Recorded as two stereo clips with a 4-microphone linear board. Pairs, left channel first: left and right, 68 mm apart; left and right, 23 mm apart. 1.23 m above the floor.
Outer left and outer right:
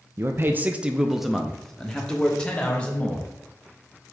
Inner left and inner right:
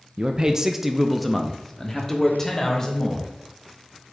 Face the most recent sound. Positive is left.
turn(degrees=20)  # may be behind; listen again after turning